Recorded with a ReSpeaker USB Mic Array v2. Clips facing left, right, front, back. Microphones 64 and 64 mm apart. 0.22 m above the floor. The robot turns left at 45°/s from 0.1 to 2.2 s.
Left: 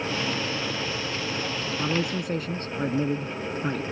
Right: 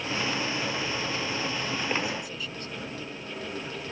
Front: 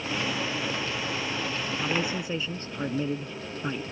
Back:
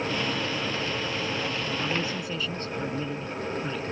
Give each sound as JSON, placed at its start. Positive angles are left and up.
{"t": 1.8, "sound": "a man speaking", "azimuth_deg": 80}